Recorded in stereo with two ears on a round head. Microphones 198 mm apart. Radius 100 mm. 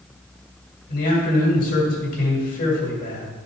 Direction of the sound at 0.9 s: 40° left (ahead or behind).